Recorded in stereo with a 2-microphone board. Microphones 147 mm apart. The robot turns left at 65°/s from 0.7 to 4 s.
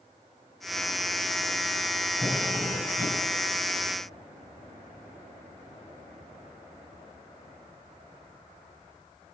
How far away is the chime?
No chime in this recording.